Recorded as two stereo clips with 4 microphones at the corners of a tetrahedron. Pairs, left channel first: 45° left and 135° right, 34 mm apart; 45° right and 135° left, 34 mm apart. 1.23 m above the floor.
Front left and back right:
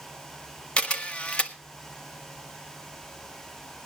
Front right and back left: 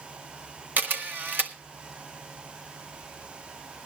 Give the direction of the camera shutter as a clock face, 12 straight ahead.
9 o'clock.